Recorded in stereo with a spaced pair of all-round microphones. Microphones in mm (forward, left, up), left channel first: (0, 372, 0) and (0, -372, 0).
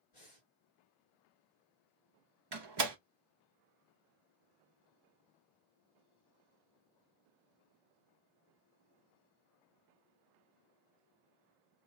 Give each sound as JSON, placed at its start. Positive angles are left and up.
{"t": 0.1, "sound": "breathing", "side_deg": 60, "distance_m": 2.0}
{"t": 2.5, "sound": "a door slam", "side_deg": -35, "distance_m": 0.7}